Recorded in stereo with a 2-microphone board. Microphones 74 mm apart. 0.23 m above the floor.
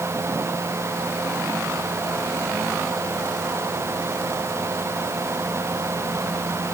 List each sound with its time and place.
Only background noise.